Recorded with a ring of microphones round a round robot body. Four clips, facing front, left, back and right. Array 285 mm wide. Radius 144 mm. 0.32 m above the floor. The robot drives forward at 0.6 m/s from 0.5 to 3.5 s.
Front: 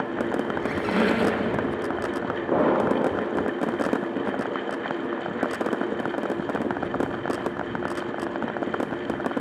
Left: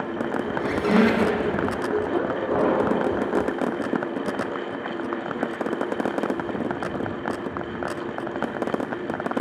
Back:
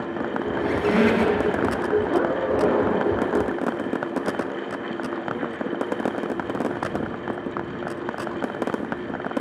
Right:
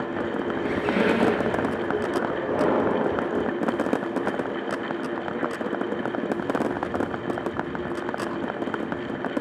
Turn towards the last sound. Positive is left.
turn(degrees=25)